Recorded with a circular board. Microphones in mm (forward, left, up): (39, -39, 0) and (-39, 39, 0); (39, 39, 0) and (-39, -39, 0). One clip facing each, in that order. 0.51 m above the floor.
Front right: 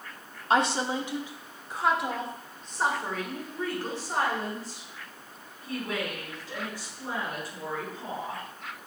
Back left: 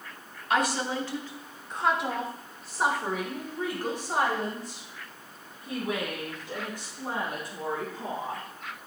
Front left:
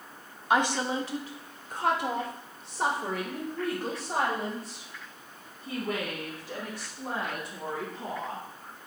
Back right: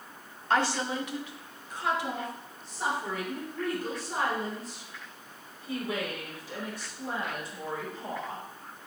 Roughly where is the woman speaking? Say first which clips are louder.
Front right 2 dB, front left 2 dB; ahead.